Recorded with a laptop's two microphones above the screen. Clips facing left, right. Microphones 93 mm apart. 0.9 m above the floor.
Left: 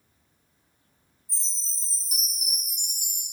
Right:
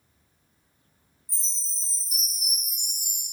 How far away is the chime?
About 0.8 m.